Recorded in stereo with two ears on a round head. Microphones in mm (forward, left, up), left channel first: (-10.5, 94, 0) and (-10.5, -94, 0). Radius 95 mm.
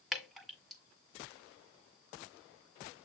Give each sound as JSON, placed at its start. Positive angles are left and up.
{"t": 0.1, "sound": "dripping", "side_deg": 0, "distance_m": 1.9}